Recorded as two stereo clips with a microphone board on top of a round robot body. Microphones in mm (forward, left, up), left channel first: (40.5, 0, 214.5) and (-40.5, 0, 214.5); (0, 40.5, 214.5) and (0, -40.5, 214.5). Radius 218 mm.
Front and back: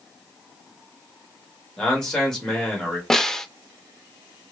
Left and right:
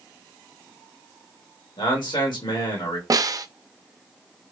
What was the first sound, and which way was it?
A man speaking, 80° left.